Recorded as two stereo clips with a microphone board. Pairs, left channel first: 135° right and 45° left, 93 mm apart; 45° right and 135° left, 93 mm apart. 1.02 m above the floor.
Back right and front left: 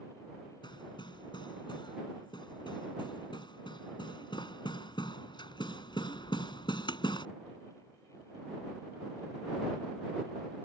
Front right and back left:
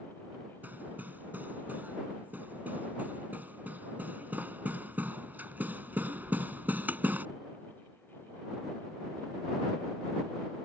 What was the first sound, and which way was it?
Hammering, 155° right.